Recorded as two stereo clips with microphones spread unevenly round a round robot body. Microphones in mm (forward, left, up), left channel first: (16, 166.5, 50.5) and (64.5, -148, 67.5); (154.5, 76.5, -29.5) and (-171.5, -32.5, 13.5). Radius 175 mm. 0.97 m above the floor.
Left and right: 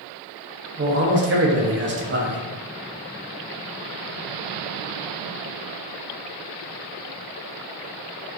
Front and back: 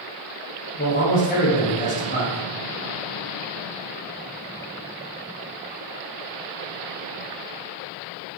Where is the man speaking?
35° right, 0.6 m.